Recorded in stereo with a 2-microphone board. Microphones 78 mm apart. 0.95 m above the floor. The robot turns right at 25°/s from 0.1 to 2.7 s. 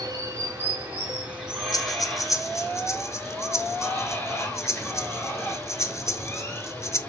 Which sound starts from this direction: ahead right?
Running water, at 0.0 s.